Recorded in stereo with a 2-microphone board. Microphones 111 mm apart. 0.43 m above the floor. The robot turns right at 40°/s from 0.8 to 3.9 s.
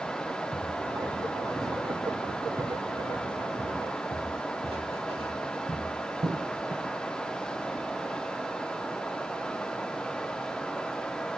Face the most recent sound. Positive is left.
turn(degrees=-40)  # may be behind; listen again after turning